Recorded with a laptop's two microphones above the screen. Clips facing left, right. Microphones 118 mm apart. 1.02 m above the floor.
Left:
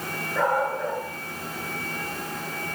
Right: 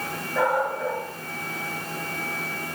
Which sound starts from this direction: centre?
A dog barking, at 0.3 s.